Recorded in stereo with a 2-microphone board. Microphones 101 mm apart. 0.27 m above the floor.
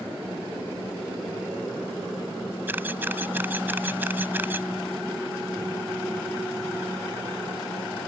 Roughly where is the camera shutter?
Right.